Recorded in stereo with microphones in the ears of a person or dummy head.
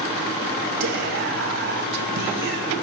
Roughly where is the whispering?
Right.